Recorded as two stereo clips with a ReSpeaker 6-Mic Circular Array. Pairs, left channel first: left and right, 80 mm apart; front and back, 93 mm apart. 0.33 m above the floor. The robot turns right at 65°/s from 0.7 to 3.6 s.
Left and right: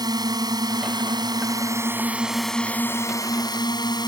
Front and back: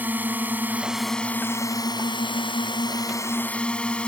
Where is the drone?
110° right; by 4.1 s 75° left.